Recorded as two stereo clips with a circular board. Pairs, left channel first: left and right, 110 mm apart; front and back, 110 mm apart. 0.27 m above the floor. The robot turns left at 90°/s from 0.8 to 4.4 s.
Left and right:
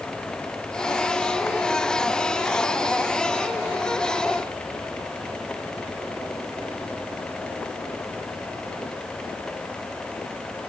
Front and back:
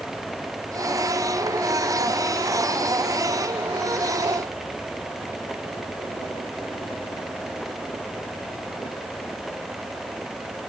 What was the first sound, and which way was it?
Only background noise.